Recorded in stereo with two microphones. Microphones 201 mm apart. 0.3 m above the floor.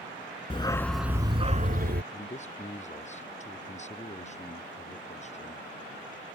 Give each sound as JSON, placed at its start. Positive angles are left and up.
{"t": 0.5, "sound": "a dog barking", "side_deg": 30}
{"t": 2.1, "sound": "a man speaking", "side_deg": 35}